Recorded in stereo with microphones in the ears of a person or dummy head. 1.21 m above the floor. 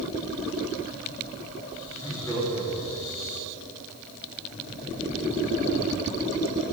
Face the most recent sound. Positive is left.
turn(degrees=45)  # may be behind; listen again after turning